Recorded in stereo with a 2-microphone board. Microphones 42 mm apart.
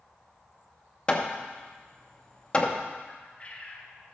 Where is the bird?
30° left (ahead or behind), 1.1 m.